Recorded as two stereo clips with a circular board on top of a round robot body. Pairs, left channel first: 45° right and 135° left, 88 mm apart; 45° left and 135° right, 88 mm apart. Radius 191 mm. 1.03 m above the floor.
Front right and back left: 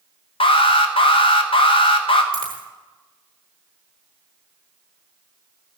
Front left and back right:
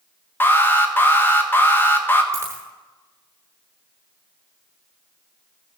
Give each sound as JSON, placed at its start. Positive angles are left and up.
{"t": 0.4, "sound": "an alarm", "azimuth_deg": -25, "distance_m": 1.2}
{"t": 2.3, "sound": "a dropped coin", "azimuth_deg": 170, "distance_m": 0.6}